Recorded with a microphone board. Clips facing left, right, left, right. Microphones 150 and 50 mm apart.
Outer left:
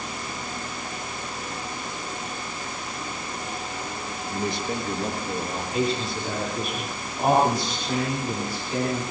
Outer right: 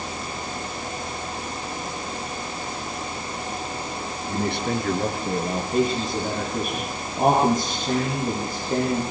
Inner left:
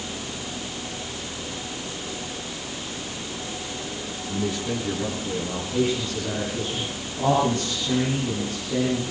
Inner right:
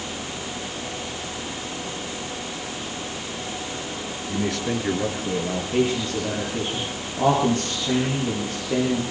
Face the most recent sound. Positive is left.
turn(degrees=-50)  # may be behind; listen again after turning